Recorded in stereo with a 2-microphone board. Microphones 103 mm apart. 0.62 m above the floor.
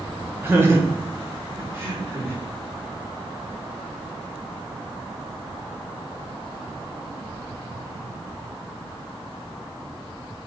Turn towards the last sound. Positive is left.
turn(degrees=-25)  # may be behind; listen again after turning